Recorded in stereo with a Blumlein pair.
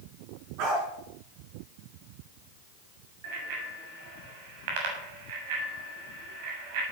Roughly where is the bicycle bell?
Ahead right.